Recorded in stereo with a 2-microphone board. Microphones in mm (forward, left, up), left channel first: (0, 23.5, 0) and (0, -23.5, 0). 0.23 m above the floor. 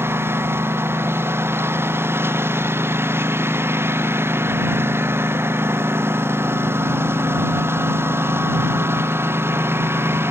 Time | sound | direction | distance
0.0 | a lawn mower | 65° right (ahead or behind) | ?